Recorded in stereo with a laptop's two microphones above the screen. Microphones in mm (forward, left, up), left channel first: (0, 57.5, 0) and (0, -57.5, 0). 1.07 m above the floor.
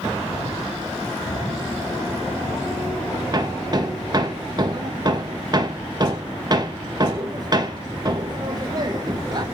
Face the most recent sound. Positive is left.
turn(degrees=-35)  # may be behind; listen again after turning